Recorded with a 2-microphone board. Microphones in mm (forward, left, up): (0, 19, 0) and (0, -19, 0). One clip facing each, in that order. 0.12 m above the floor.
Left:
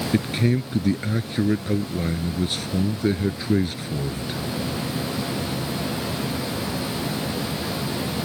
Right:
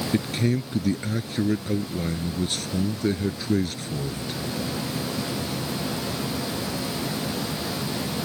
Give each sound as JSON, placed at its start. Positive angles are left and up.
{"t": 0.1, "sound": "a man speaking", "side_deg": 15}